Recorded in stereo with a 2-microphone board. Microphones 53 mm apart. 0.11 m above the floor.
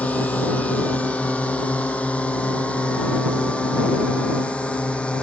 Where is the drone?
30° left (ahead or behind); by 5.2 s 25° left (ahead or behind).